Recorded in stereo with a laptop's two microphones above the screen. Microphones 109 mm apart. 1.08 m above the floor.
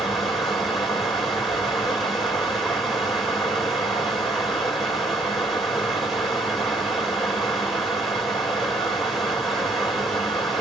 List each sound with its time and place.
0.0 s running water: centre (ahead or behind), 3 m